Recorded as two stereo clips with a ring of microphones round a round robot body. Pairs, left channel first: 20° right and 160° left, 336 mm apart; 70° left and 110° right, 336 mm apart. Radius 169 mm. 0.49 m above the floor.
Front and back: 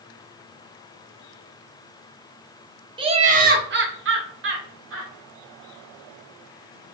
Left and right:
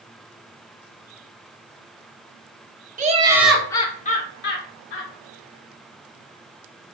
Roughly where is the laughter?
Behind right.